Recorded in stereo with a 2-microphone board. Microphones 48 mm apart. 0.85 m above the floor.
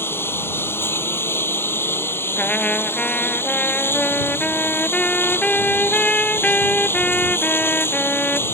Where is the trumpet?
25° left (ahead or behind).